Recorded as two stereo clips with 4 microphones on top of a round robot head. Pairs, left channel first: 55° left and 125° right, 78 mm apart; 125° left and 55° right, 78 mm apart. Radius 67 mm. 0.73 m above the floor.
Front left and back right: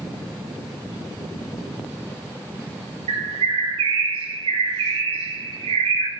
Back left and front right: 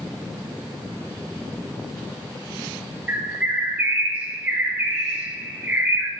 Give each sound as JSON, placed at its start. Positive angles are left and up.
{"t": 3.1, "sound": "a bird", "azimuth_deg": -130, "distance_m": 1.4}